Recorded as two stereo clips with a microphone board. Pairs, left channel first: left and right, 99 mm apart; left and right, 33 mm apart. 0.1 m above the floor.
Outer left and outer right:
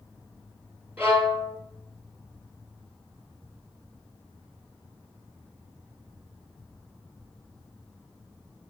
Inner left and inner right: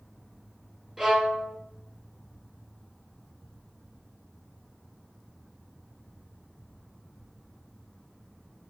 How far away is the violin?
About 1.3 m.